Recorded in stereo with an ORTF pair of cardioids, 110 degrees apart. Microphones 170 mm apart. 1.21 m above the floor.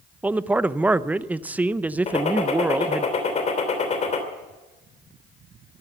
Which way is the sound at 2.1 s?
40° left.